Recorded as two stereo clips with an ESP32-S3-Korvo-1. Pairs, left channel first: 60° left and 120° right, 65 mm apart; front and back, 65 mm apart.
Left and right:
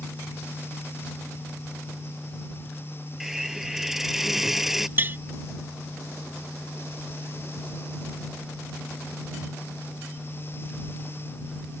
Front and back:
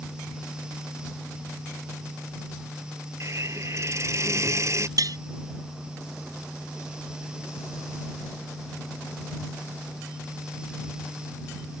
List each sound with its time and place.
3.2 s a hiss: 155° left
5.0 s tapping: 175° right